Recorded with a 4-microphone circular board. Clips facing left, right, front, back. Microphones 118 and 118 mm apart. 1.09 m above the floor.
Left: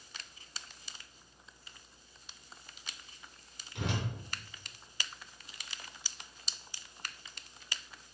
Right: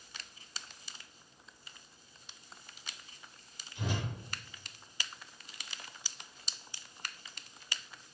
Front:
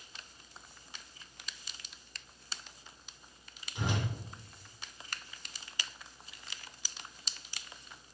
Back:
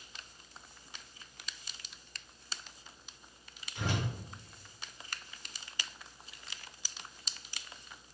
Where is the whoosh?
75° left, 4 m.